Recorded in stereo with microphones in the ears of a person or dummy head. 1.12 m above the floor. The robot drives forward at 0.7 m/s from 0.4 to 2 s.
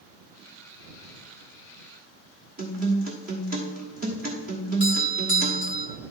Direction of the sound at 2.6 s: 40° right (ahead or behind).